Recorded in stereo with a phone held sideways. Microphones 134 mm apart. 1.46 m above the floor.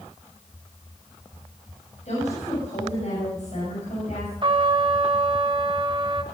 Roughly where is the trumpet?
Right.